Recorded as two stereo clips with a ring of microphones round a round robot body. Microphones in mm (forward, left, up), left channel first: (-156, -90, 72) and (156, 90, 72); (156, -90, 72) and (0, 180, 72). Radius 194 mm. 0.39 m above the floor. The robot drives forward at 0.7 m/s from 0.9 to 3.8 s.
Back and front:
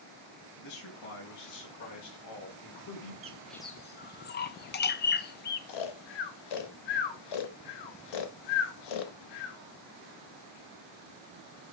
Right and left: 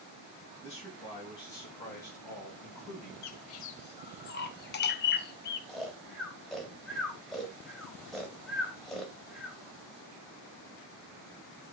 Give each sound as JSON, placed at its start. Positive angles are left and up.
{"t": 0.6, "sound": "a man speaking", "azimuth_deg": -135, "distance_m": 4.0}
{"t": 3.2, "sound": "a bird", "azimuth_deg": -40, "distance_m": 0.6}
{"t": 5.7, "sound": "snoring", "azimuth_deg": -150, "distance_m": 0.9}